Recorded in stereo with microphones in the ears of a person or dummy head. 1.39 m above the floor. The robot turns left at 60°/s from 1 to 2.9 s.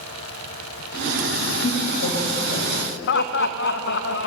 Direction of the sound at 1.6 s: 45° left (ahead or behind).